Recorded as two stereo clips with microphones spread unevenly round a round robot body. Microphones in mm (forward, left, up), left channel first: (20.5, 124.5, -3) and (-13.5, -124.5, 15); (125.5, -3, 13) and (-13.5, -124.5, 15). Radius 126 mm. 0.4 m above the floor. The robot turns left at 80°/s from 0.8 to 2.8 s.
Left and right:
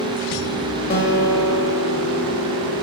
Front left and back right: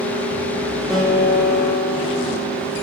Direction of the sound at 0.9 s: 135° left.